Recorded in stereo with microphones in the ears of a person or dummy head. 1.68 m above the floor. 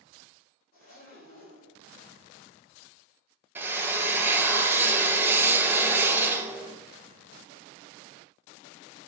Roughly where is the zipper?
Left.